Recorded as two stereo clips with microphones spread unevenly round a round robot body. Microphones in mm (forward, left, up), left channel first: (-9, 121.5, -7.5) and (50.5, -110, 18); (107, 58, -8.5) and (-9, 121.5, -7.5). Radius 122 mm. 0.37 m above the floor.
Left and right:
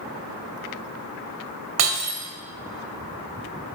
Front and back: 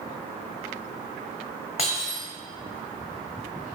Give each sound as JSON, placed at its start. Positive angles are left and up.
{"t": 1.8, "sound": "breaking glass", "azimuth_deg": -85, "distance_m": 1.1}